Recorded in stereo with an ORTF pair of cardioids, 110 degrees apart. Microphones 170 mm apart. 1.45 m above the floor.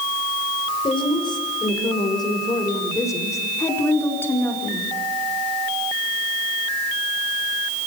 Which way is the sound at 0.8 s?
30° left.